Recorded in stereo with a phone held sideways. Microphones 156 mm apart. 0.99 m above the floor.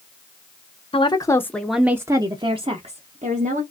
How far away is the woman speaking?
About 0.7 m.